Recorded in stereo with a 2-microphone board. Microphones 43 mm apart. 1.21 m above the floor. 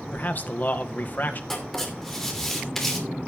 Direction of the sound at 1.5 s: 10° left (ahead or behind).